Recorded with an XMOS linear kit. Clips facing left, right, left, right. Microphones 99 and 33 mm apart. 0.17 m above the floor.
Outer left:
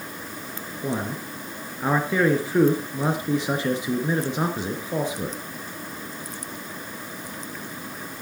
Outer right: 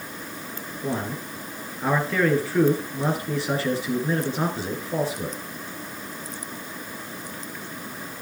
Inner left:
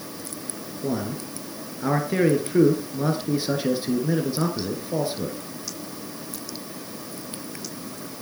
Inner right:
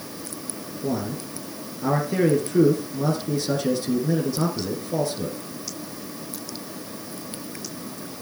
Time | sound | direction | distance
0.8 | a man speaking | 20° left (ahead or behind) | 2.5 m